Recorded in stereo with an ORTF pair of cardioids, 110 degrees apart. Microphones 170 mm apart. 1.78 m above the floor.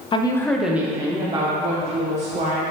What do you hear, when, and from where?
0.1 s a woman speaking: 30° left, 0.9 m; by 2.6 s 45° right, 2.5 m